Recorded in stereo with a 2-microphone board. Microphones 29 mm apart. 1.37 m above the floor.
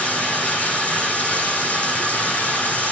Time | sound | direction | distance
0.0 | running water | 65° left (ahead or behind) | 5 m